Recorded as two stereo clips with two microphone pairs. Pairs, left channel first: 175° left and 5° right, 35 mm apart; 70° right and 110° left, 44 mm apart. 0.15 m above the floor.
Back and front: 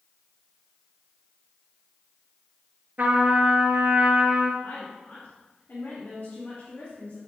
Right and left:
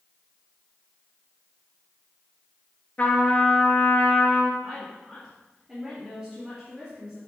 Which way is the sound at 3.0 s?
30° right.